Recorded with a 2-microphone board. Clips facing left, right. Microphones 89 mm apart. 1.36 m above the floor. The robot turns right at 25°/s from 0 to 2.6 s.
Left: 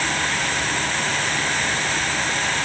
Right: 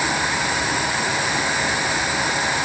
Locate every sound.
Only background noise.